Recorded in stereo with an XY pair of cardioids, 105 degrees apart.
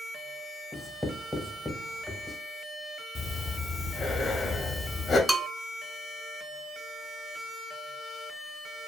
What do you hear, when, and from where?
0.7 s writing: 10° left, 0.8 m
3.1 s breathing: 30° left, 0.7 m
5.3 s a bell: 15° right, 0.6 m